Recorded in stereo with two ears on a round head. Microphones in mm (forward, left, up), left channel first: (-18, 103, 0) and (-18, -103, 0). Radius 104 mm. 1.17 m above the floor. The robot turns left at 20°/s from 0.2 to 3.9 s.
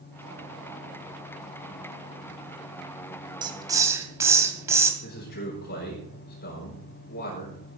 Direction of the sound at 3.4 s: 20° right (ahead or behind).